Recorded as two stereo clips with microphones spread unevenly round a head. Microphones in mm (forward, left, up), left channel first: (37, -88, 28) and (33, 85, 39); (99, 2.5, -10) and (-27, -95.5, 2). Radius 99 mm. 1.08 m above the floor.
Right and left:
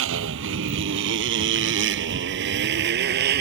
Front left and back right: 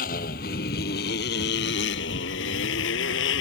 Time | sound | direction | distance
0.0 | a motorcycle | 90° left | ?